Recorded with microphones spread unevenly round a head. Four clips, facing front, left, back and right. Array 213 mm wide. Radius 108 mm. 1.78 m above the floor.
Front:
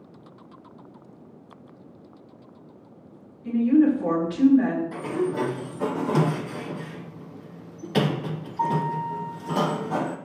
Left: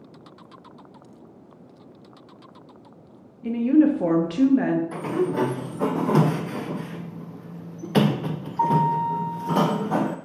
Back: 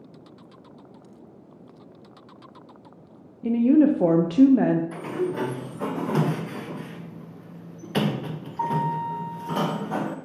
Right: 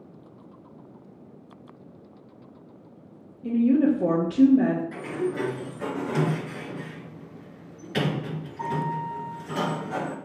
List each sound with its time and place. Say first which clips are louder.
3.4 s a woman speaking: left 2 dB, back 1 dB; straight behind, 1.1 m
4.9 s a sliding door: left 4 dB, front 1 dB; 70° left, 0.6 m